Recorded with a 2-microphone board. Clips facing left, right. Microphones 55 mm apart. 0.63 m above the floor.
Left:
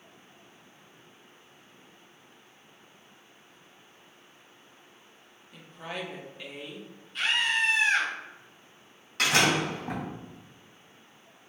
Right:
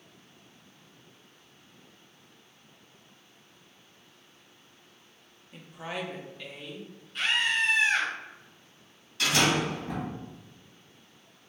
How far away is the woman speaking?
About 0.6 m.